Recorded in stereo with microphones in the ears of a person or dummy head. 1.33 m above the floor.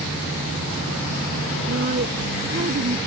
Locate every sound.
1.7 s a woman speaking: 45° right (ahead or behind)